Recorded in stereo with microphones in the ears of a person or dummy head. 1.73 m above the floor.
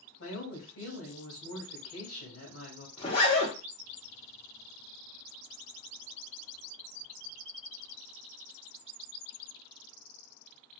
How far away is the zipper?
About 0.8 m.